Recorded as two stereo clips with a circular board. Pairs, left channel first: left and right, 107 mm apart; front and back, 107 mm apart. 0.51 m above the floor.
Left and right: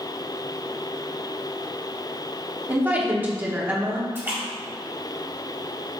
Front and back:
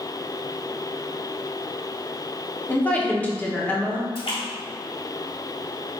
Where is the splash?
25° right, 1.7 m.